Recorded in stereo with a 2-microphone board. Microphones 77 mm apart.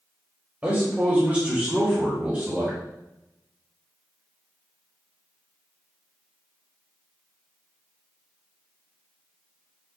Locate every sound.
0.6 s a man speaking: 20° right (ahead or behind), 1.4 m; by 2.8 s 15° right (ahead or behind), 1.6 m